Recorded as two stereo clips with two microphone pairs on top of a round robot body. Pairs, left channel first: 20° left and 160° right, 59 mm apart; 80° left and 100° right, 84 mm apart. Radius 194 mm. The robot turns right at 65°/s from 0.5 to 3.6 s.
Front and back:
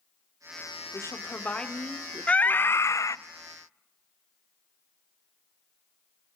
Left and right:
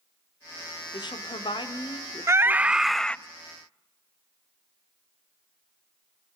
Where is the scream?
50° right, 1.0 m; by 3.2 s 5° left, 1.0 m.